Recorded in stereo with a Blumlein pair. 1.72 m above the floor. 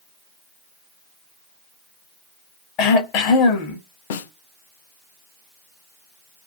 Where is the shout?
No shout in this recording.